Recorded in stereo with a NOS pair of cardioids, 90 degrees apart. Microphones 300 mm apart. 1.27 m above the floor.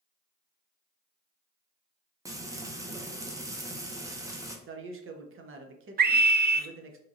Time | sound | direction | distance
2.2 | frying | 10° right | 0.5 m
4.7 | a man speaking | 45° right | 0.7 m
6.0 | a scream | 35° right | 0.5 m